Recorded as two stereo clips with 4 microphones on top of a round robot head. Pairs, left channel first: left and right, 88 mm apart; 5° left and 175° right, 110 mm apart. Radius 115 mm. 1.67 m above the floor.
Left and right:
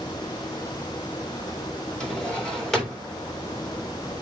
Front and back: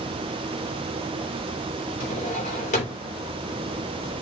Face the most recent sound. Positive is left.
turn(degrees=10)